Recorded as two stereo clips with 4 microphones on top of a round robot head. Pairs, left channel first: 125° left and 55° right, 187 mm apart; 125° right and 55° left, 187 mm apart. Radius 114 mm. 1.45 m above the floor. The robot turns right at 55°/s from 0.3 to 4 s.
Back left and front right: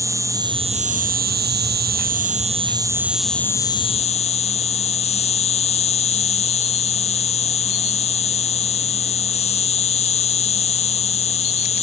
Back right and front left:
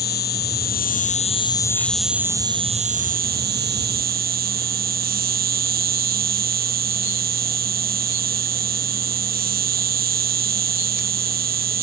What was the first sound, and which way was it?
An insect, 130° right.